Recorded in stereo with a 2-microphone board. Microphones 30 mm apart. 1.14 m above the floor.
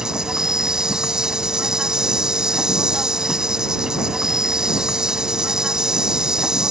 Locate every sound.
0.0 s an insect: 25° right (ahead or behind)